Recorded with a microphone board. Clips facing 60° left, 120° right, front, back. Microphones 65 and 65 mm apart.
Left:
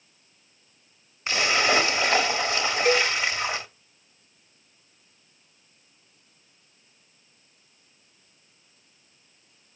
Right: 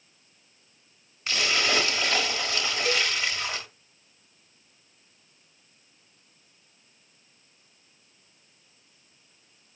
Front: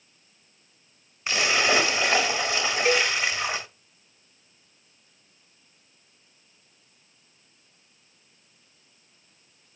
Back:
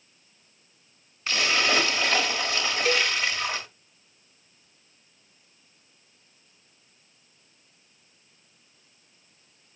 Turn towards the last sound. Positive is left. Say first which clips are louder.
# left 6 dB, front 2 dB
turn(degrees=55)